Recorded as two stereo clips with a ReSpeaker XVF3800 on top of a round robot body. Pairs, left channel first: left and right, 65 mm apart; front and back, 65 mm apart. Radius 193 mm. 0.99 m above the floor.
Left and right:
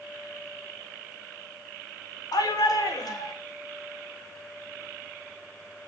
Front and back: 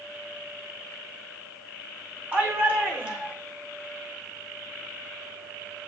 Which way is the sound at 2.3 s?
115° left.